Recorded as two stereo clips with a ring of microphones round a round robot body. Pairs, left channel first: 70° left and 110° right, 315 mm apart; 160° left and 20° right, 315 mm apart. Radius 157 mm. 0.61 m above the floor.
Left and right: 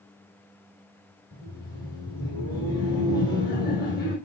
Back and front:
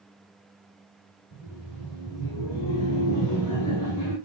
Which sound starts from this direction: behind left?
Laughter, at 1.3 s.